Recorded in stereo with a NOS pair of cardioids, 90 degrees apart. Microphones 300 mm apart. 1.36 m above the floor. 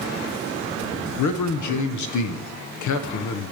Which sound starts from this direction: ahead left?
A man speaking, at 1.2 s.